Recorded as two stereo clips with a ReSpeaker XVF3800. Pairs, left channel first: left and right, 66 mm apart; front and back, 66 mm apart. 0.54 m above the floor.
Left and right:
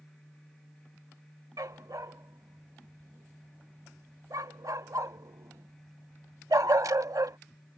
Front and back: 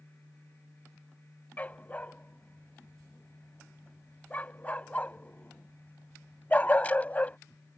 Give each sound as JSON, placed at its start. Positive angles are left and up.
{"t": 1.6, "sound": "a dog barking", "azimuth_deg": -65}